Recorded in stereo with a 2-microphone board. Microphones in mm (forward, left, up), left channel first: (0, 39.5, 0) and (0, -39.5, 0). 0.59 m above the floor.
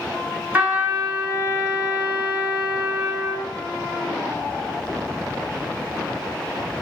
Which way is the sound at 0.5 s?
20° right (ahead or behind).